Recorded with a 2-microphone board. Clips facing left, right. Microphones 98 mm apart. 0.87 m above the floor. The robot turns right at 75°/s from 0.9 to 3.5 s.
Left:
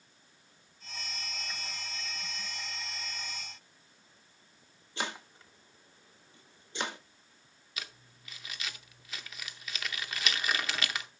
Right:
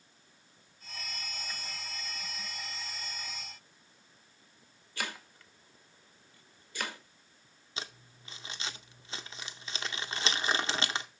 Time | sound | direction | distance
5.0 | chopping | 20° left (ahead or behind) | 0.7 m
7.8 | crumpling | 30° right (ahead or behind) | 0.6 m